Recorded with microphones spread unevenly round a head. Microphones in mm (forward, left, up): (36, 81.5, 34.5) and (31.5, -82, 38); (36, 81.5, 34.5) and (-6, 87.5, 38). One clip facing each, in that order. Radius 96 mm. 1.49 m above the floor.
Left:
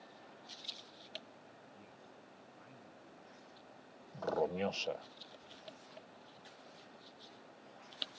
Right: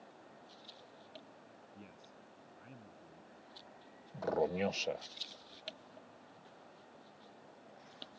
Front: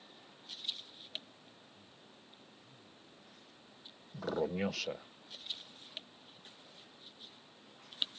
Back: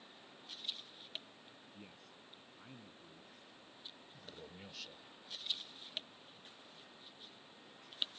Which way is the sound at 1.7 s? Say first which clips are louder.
Right 1 dB, back 2 dB; 160° right.